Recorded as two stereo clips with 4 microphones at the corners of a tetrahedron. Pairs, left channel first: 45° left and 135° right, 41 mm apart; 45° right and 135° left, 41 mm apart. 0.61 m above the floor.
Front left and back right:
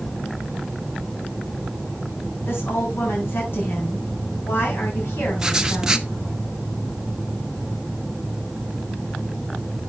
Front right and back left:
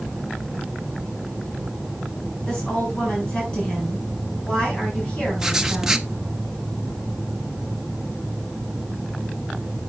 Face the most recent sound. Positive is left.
turn(degrees=-170)